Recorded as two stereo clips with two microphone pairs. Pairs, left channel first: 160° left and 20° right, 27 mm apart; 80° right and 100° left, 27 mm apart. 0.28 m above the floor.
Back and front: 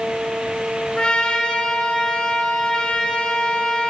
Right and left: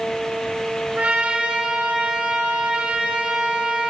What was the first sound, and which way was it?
A trumpet, 95° left.